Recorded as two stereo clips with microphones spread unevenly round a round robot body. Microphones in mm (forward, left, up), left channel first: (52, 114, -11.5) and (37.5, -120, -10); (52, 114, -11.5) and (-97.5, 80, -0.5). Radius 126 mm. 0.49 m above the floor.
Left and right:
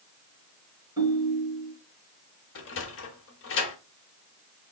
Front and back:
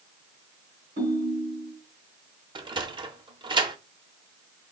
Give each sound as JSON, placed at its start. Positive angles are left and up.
{"t": 1.0, "sound": "a ringtone", "azimuth_deg": -170, "distance_m": 2.5}
{"t": 2.5, "sound": "a sliding door", "azimuth_deg": 130, "distance_m": 0.7}